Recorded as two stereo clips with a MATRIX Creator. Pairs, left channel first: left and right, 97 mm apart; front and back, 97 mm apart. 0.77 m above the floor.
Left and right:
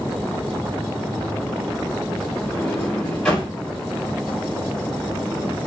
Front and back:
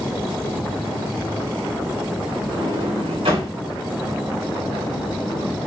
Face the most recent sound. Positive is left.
turn(degrees=170)